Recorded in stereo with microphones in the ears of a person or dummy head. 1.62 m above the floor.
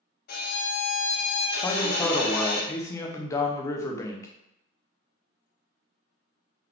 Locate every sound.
0.3 s a violin: 60° left (ahead or behind), 0.6 m
1.6 s a man speaking: 20° left (ahead or behind), 0.7 m